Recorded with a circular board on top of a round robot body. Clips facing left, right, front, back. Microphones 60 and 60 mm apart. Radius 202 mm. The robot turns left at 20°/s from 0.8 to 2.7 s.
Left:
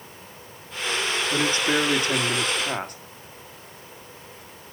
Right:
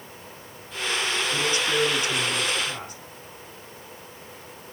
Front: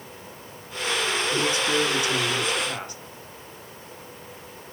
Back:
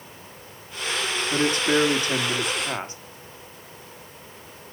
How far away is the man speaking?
About 1.9 m.